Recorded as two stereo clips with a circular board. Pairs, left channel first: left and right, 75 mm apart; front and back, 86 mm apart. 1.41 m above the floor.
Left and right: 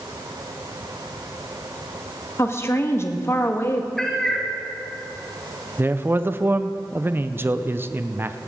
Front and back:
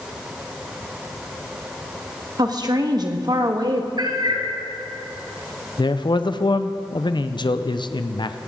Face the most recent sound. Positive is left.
turn(degrees=-30)